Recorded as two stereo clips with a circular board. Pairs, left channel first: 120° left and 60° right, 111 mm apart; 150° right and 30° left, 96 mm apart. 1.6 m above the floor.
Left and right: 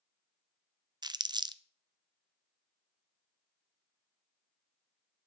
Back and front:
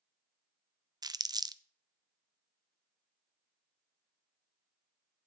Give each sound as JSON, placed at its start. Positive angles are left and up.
{"t": 1.0, "sound": "crumpling", "azimuth_deg": -15, "distance_m": 0.5}